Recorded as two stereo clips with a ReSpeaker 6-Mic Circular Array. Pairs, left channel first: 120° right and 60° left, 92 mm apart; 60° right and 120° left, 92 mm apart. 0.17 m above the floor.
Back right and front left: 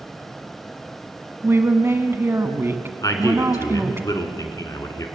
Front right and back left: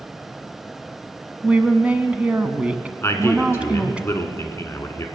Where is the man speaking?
105° right, 1.6 m.